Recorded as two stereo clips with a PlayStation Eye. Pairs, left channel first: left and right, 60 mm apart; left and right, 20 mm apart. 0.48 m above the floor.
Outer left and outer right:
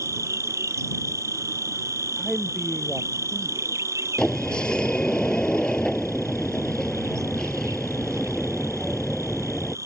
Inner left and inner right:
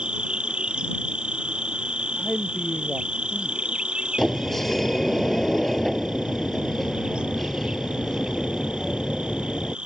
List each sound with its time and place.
0.0 s an insect: 55° right (ahead or behind)
2.2 s a man speaking: 5° left (ahead or behind)
4.2 s a sliding door: 15° left (ahead or behind)